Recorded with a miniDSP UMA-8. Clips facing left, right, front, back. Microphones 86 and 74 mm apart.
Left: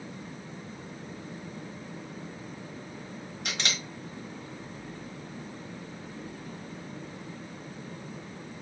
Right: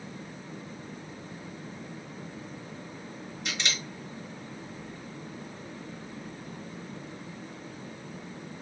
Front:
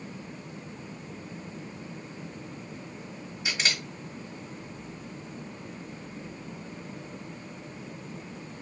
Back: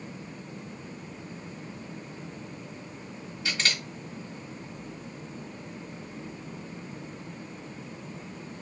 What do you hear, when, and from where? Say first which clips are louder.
3.5 s a camera shutter: even, even; 70° left, 1.4 m